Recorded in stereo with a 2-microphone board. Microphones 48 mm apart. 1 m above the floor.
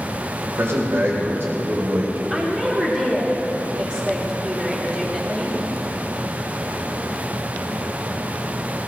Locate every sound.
0.6 s a man speaking: 65° right (ahead or behind), 3.5 m; by 2.2 s 50° right (ahead or behind), 5 m
2.3 s a woman speaking: 25° right (ahead or behind), 3.5 m